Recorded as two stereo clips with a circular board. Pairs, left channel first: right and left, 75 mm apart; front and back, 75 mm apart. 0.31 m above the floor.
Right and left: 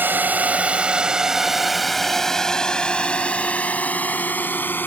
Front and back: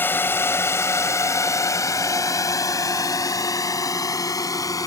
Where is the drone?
45° left; by 4.9 s 30° right.